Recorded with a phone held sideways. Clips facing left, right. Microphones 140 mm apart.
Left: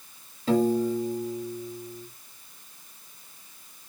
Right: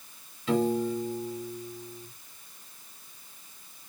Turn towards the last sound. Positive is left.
turn(degrees=40)  # may be behind; listen again after turning